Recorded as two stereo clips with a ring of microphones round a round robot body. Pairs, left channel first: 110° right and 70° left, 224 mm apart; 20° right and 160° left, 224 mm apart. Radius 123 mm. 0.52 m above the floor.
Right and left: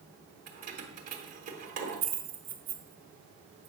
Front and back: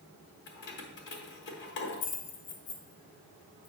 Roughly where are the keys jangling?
Ahead.